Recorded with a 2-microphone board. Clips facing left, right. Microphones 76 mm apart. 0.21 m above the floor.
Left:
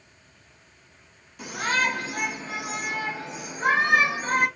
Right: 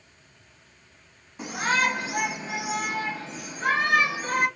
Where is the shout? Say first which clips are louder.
Right 1 dB; 30° right (ahead or behind), 1.9 m; by 4.5 s 35° left (ahead or behind), 1.7 m.